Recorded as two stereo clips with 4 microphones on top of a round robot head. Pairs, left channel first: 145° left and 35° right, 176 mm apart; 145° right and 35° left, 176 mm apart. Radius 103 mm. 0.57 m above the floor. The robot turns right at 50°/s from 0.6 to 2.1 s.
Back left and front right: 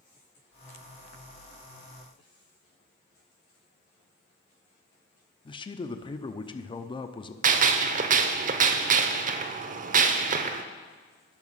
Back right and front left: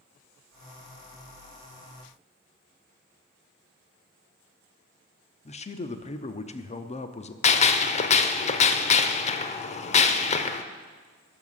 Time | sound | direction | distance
5.5 | a man speaking | 170° right | 0.7 m
7.4 | a gunshot | 85° right | 0.5 m